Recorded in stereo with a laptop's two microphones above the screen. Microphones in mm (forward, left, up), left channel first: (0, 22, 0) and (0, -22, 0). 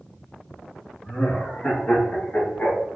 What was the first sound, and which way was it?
Laughter, 20° left (ahead or behind).